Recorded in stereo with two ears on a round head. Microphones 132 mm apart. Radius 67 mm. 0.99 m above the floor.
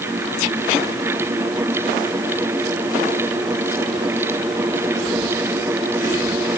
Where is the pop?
I don't hear a pop.